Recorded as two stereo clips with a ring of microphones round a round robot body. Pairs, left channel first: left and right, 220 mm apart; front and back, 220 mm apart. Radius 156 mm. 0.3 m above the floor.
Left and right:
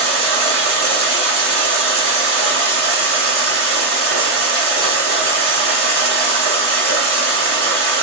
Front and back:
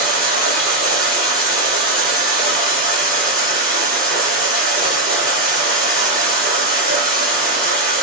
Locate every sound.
0.0 s running water: 70° right, 1.4 m